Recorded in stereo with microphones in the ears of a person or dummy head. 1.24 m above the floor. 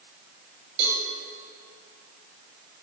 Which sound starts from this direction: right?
A cowbell, at 0.8 s.